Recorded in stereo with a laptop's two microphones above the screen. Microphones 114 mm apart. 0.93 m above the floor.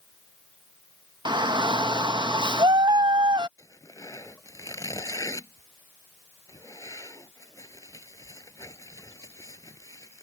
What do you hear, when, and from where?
1.2 s a shout: 40° right (ahead or behind)
3.6 s tearing paper: 30° left (ahead or behind)